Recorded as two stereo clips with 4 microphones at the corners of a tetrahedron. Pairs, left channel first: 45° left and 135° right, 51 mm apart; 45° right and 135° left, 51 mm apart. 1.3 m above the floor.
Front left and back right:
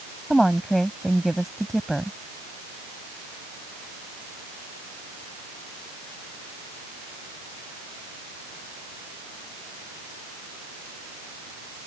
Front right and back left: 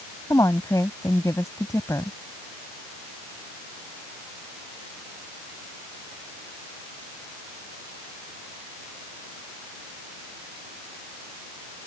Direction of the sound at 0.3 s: 45° right.